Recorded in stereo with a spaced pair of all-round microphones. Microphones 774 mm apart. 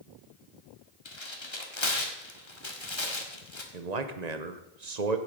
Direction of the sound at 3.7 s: 60° right (ahead or behind).